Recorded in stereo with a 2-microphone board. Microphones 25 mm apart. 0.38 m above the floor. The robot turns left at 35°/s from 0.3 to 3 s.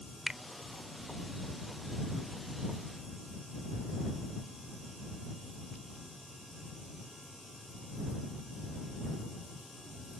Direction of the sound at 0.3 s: 25° right (ahead or behind).